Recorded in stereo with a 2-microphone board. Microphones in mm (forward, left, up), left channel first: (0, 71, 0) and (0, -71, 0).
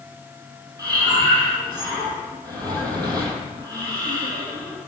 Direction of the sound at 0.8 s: 25° right (ahead or behind).